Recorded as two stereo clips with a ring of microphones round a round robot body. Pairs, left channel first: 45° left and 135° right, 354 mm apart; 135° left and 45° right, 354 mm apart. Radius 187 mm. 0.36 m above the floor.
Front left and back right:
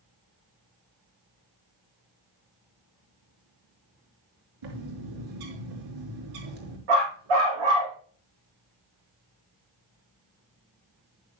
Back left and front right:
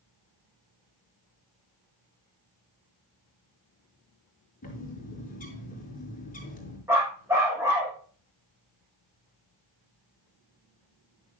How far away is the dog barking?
About 7 m.